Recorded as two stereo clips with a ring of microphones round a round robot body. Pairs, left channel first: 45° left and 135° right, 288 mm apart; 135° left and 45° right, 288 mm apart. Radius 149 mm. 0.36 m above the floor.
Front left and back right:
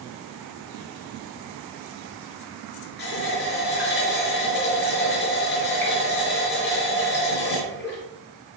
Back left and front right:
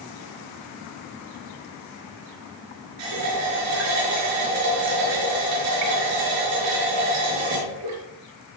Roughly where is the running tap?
Ahead.